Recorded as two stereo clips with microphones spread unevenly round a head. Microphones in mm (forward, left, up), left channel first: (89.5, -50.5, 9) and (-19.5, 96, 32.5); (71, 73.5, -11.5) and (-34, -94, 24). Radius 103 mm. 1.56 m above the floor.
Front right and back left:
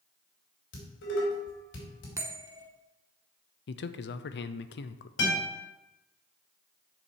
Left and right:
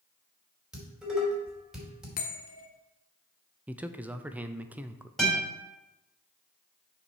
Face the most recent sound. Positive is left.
turn(degrees=-35)